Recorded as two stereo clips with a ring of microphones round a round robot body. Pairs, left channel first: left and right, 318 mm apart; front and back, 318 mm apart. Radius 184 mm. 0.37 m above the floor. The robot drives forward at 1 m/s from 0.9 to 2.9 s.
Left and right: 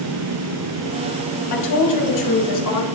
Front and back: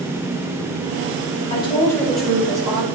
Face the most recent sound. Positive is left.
turn(degrees=110)